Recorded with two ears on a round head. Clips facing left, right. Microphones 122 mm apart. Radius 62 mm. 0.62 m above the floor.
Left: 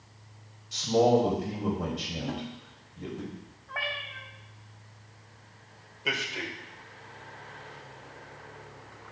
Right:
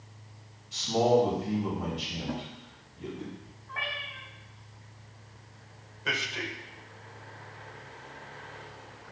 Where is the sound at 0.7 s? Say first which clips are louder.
Left 1 dB; 60° left (ahead or behind), 3.5 m.